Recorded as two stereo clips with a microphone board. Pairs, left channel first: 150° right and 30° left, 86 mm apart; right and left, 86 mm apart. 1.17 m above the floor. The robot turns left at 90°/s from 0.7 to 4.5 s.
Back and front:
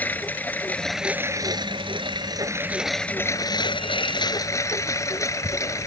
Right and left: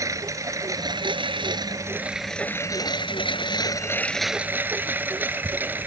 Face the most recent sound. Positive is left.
turn(degrees=155)